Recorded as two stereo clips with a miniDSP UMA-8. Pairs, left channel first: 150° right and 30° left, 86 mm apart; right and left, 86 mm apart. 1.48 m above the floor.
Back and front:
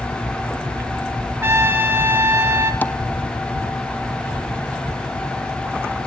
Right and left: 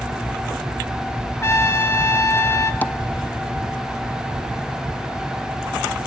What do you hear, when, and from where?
1.4 s a trumpet: 30° right, 1.8 m
2.8 s tapping: 115° right, 0.6 m